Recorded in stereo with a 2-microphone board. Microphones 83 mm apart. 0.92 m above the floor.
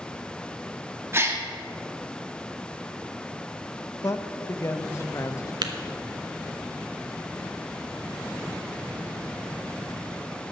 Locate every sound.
1.1 s a gasp: 30° right (ahead or behind), 1.5 m
4.0 s a man speaking: 35° left (ahead or behind), 0.7 m
5.6 s tapping: 60° right (ahead or behind), 1.0 m